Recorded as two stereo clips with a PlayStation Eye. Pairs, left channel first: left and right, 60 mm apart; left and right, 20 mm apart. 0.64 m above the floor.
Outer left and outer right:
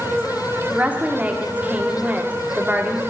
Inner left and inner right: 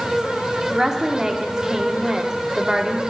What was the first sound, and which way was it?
A woman speaking, 25° right (ahead or behind).